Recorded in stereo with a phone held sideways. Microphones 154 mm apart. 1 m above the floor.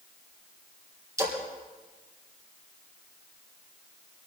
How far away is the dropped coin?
I don't hear a dropped coin.